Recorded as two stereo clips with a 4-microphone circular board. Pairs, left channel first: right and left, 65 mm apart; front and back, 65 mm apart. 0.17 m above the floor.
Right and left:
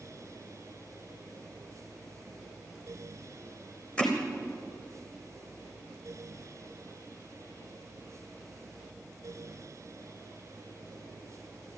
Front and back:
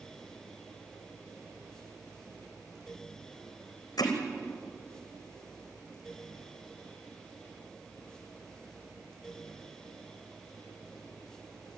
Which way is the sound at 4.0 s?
15° right.